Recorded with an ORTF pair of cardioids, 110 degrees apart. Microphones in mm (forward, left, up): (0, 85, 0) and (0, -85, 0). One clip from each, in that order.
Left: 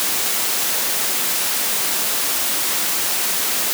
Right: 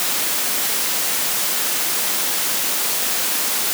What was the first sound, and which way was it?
Only background noise.